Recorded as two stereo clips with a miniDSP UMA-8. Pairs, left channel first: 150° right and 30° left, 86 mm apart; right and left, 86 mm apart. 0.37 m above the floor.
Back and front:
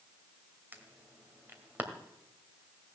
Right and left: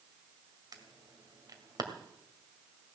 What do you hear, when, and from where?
0.7 s an alarm: 95° left, 2 m